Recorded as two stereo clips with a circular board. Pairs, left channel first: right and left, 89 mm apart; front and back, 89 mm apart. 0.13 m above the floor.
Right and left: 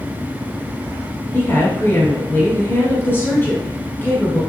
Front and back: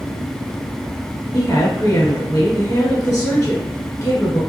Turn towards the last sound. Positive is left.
turn(degrees=-45)